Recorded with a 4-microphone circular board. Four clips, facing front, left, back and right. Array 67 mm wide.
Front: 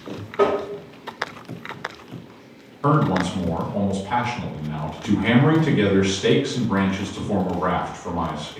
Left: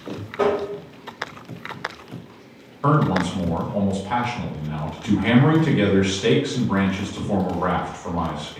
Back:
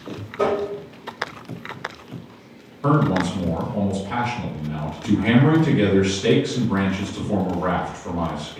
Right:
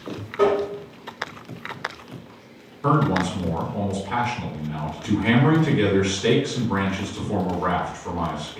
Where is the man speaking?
70° left, 1.2 m.